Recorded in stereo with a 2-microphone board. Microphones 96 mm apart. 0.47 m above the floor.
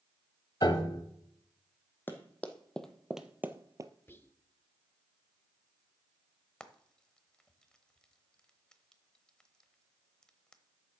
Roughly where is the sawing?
No sawing in this recording.